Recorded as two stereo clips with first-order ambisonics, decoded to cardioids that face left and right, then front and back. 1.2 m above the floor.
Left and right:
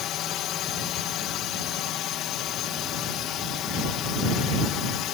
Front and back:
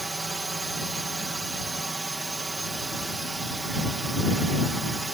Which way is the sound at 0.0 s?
105° left.